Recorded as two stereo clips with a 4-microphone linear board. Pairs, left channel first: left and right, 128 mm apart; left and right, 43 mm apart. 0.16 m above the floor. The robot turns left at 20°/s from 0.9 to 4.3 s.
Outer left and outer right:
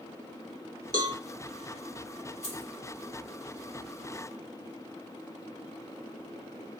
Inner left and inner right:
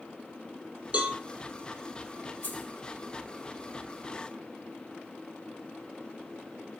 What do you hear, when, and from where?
0.9 s a cowbell: 30° right (ahead or behind), 0.5 m
2.4 s keys jangling: 50° left (ahead or behind), 1.3 m